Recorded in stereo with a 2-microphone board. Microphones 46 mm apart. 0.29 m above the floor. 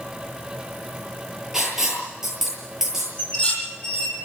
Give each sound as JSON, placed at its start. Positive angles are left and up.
{"t": 1.5, "sound": "writing", "side_deg": -10, "distance_m": 8.0}
{"t": 3.2, "sound": "dishes clattering", "side_deg": 20, "distance_m": 7.0}